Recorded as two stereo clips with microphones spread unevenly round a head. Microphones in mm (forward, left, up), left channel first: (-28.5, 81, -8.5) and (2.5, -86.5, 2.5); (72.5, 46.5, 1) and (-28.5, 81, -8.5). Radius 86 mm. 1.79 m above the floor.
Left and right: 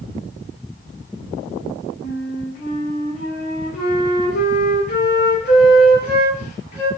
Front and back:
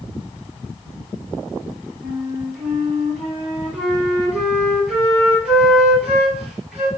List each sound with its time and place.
2.0 s a flute: 80° left, 2.5 m